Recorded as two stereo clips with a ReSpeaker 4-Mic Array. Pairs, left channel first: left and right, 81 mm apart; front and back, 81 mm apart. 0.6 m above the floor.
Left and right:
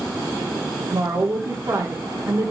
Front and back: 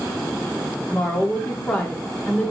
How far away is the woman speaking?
About 1.4 m.